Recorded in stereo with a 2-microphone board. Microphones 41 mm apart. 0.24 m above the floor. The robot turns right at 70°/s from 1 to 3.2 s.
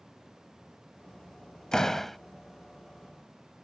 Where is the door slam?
15° left (ahead or behind); by 2.2 s 5° left (ahead or behind).